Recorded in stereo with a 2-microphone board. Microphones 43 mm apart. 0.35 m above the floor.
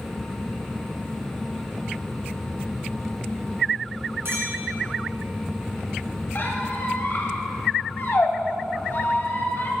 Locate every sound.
4.2 s a clink: 60° right (ahead or behind), 3 m
6.3 s a squeak: 50° left (ahead or behind), 1.0 m